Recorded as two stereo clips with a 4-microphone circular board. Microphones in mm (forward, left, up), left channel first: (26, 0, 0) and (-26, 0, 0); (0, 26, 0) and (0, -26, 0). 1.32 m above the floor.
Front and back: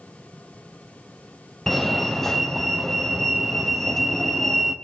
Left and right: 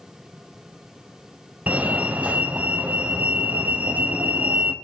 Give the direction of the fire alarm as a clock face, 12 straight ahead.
3 o'clock.